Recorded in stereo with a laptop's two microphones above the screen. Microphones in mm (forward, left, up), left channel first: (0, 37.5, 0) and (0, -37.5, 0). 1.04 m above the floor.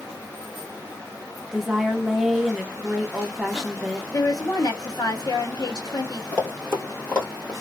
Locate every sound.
1.5 s a woman speaking: 5° right (ahead or behind), 0.6 m
4.1 s a woman speaking: 55° left (ahead or behind), 1.0 m
6.3 s running footsteps: 25° left (ahead or behind), 1.1 m; by 7.5 s 20° left (ahead or behind), 1.4 m